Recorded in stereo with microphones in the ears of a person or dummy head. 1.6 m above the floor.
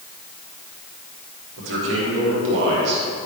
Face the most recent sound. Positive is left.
turn(degrees=-60)  # may be behind; listen again after turning